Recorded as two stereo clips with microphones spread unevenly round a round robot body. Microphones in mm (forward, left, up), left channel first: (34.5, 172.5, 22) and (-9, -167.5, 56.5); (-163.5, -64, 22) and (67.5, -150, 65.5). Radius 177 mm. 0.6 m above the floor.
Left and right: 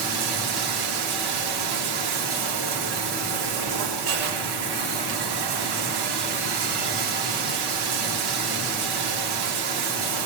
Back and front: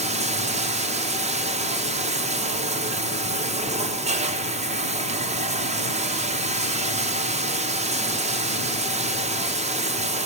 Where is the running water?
90° right, 1.2 m.